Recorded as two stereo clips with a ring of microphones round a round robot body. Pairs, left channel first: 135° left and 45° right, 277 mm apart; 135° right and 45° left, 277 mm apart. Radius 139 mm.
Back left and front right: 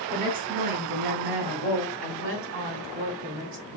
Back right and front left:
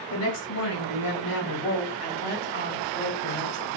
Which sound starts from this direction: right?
A woman speaking, at 0.1 s.